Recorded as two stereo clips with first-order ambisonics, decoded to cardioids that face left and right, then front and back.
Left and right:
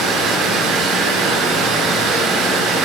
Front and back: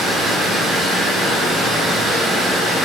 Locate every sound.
0.0 s running water: 115° right, 3.5 m